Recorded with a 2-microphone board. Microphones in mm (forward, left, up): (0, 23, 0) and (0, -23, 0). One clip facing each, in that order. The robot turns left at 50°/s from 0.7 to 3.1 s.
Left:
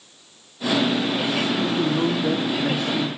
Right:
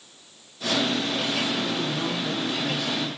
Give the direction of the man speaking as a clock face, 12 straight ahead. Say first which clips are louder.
Left 6 dB; 8 o'clock.